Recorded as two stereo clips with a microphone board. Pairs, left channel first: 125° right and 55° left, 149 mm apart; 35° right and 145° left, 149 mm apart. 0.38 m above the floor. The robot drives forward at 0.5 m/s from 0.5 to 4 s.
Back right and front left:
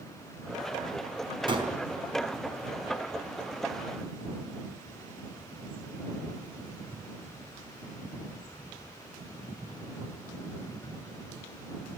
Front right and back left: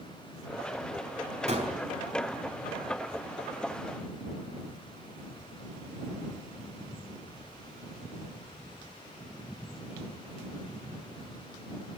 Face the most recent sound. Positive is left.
turn(degrees=125)